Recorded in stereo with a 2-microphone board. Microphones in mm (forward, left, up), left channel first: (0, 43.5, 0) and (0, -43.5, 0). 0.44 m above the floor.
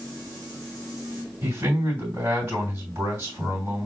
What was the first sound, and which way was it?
A man speaking, 25° right (ahead or behind).